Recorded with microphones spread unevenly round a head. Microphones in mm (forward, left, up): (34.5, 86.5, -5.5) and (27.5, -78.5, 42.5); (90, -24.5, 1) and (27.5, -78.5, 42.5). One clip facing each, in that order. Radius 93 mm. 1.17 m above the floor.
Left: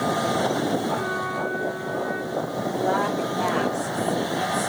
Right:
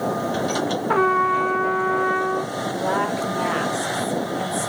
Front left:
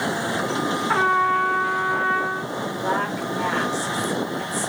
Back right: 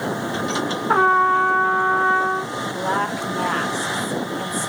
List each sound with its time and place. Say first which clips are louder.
0.9 s a trumpet: right 7 dB, back right 4 dB; 85° right, 0.7 m
2.7 s a woman speaking: even, back right 2 dB; 105° right, 5 m